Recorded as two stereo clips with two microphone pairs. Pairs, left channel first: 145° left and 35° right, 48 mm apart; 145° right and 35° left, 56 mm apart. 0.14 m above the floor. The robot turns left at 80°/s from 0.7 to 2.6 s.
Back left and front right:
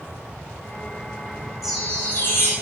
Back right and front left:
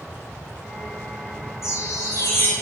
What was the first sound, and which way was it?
A chime, 120° right.